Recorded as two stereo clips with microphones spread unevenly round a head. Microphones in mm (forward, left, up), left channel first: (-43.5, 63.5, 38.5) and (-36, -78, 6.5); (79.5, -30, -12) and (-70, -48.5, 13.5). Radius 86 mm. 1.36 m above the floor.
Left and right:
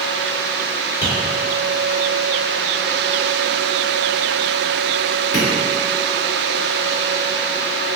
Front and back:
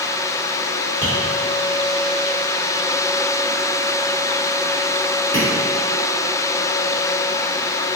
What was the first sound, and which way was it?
Tapping, 90° left.